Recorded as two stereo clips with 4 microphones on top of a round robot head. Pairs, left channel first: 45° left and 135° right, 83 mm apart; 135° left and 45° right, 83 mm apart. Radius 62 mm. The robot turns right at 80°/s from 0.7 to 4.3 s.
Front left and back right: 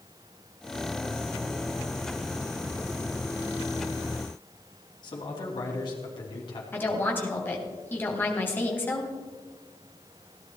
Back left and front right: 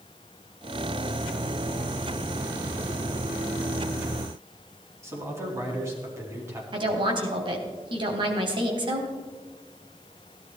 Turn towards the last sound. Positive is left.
turn(degrees=-20)